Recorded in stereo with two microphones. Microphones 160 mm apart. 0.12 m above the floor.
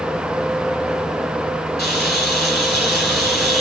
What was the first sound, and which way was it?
A camera shutter, 85° left.